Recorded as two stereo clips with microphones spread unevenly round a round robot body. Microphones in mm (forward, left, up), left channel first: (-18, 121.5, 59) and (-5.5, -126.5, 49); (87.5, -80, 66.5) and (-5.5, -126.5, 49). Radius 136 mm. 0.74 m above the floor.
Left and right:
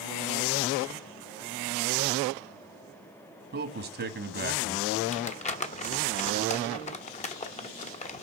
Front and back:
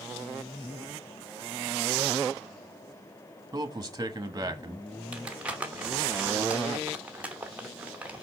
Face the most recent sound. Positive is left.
turn(degrees=145)